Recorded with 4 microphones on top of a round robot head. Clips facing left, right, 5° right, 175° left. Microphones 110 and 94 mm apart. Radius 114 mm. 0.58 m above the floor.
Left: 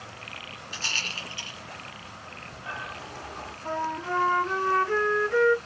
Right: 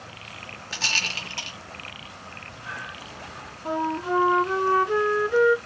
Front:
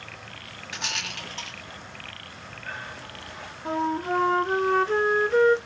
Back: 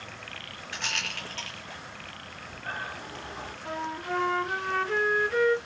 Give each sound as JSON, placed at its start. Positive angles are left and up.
{"t": 0.7, "sound": "a rattle", "azimuth_deg": -85, "distance_m": 1.7}
{"t": 2.3, "sound": "breathing", "azimuth_deg": 135, "distance_m": 1.5}
{"t": 3.6, "sound": "a flute", "azimuth_deg": -30, "distance_m": 0.6}